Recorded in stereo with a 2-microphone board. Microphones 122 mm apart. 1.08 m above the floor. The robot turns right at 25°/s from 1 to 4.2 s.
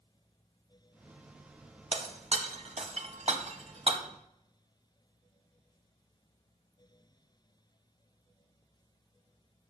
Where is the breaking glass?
55° right (ahead or behind), 1.6 m; by 4.0 s 50° right (ahead or behind), 1.6 m.